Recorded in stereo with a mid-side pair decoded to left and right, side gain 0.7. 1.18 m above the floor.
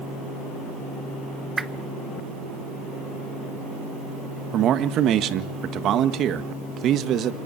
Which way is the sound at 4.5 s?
50° right.